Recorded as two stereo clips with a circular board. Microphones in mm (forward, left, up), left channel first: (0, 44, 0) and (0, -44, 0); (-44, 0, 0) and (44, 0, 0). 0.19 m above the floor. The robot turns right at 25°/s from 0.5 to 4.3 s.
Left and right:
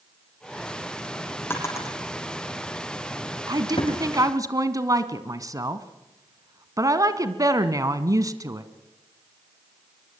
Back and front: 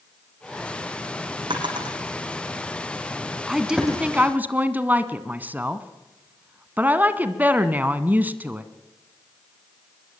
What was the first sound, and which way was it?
A drawer, 25° left.